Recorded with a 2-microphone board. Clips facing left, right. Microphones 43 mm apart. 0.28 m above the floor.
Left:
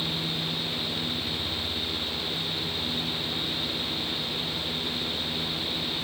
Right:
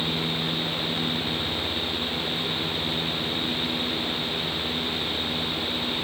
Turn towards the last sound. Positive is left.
No sound to turn to.